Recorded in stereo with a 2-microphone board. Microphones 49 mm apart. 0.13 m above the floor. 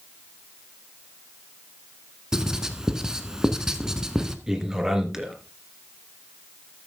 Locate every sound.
2.3 s writing: 15° right (ahead or behind), 1.3 m
4.5 s a man speaking: 10° right (ahead or behind), 2.5 m